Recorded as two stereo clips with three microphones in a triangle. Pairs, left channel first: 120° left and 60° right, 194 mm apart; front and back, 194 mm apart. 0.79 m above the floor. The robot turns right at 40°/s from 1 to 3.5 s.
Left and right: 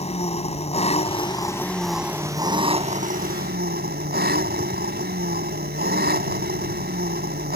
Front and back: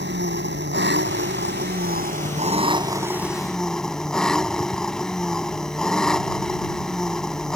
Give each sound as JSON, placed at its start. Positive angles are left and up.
{"t": 0.0, "sound": "an engine running", "azimuth_deg": 175}